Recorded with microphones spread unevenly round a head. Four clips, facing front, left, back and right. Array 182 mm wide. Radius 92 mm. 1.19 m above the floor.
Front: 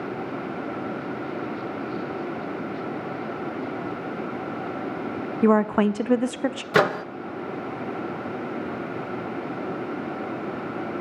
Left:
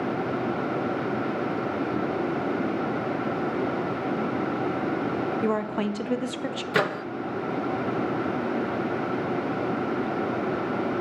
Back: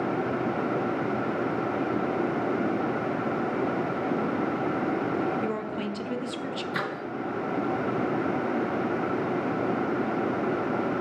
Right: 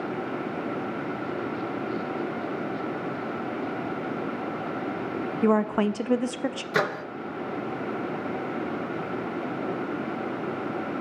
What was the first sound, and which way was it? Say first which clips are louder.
A woman speaking: right 3 dB, front 11 dB; 20° right.